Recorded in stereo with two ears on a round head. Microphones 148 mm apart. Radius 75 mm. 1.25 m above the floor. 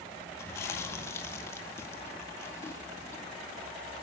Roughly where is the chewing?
Centre.